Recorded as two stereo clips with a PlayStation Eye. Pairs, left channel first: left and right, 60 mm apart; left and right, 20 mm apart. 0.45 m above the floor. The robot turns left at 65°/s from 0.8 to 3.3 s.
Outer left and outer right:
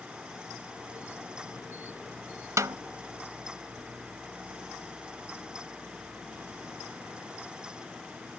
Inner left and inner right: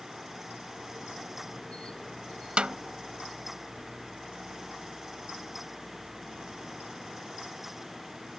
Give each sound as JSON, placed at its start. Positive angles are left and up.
{"t": 2.6, "sound": "a snare drum", "side_deg": -60}